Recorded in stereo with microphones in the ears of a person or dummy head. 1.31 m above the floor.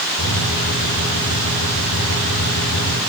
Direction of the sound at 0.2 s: 65° left (ahead or behind).